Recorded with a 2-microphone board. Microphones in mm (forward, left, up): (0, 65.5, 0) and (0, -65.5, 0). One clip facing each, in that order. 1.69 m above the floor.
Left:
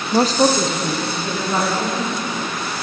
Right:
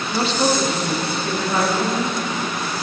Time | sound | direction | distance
0.1 | a woman speaking | 50° left (ahead or behind) | 0.6 m